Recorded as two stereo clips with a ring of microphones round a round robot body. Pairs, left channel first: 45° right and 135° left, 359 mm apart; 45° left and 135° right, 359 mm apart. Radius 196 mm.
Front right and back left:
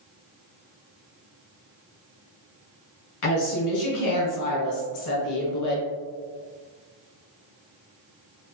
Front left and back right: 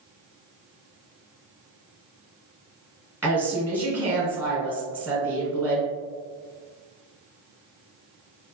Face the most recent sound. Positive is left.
turn(degrees=-50)